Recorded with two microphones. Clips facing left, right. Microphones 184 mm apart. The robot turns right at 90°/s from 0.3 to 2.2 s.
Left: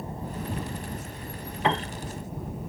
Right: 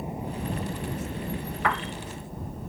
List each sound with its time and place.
0.0 s a helicopter: 165° right; by 2.7 s 5° left
1.6 s a piano: 20° left (ahead or behind); by 1.9 s 50° left (ahead or behind)